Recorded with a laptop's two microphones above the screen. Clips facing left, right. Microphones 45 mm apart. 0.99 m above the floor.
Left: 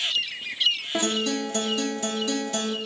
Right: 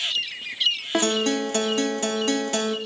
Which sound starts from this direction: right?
A guitar, at 0.9 s.